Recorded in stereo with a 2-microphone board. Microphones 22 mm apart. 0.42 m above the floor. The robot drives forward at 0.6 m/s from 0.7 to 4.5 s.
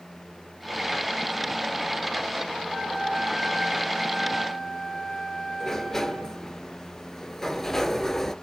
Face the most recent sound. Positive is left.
turn(degrees=15)  # may be behind; listen again after turning